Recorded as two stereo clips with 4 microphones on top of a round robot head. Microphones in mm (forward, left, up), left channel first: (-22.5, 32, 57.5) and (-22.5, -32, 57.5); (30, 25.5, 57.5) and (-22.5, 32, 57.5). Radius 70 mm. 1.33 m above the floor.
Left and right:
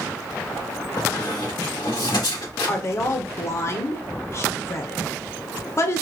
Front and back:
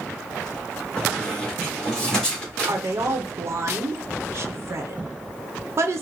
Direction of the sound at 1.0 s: 70° left.